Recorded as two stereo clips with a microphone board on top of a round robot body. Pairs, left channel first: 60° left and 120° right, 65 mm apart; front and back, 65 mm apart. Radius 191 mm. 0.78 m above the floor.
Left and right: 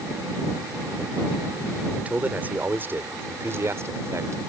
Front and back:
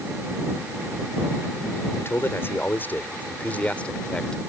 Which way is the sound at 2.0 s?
50° right.